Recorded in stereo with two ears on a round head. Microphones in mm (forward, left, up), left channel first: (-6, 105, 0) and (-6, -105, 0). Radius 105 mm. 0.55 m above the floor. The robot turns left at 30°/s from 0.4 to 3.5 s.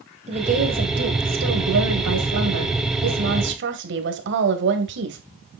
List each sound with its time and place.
0.3 s a woman speaking: 30° right, 2.5 m; by 5.2 s 125° right, 2.5 m